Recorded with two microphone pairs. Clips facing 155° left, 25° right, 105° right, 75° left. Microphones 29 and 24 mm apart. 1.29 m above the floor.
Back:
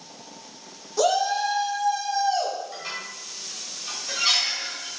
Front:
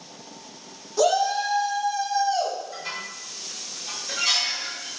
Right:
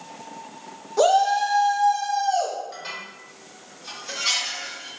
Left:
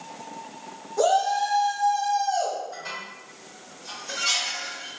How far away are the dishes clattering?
About 1.5 m.